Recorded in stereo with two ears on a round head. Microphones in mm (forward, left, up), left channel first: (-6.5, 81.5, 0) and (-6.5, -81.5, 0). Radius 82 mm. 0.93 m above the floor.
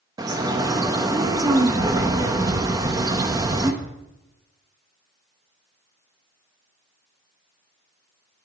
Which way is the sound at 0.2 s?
20° right (ahead or behind).